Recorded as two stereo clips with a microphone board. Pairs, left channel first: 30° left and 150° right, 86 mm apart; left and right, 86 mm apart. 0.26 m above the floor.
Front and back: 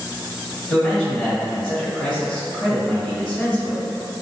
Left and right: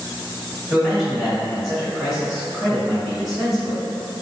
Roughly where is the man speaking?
Ahead.